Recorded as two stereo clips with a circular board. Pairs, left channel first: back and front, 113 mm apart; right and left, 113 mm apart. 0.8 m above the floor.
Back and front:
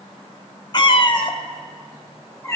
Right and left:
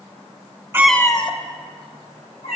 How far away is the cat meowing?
About 0.5 m.